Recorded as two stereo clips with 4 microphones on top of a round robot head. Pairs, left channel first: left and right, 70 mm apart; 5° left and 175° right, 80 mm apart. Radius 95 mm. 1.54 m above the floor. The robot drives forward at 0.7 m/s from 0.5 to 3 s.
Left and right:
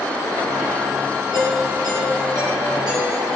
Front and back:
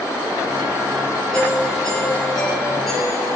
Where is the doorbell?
80° right, 9.5 m; by 3.4 s 85° right, 9.5 m.